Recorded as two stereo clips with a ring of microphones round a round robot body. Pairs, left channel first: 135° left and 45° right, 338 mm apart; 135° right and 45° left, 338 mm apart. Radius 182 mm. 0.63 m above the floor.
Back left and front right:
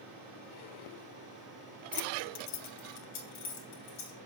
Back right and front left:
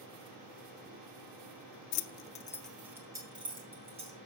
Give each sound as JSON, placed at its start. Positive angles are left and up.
{"t": 1.9, "sound": "keys jangling", "azimuth_deg": -145, "distance_m": 0.6}